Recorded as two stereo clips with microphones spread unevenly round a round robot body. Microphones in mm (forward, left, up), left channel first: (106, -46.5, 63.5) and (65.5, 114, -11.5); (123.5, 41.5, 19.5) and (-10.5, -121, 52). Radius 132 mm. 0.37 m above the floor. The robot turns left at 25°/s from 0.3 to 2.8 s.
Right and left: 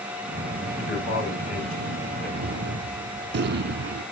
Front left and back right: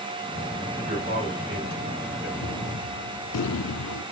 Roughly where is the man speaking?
Right.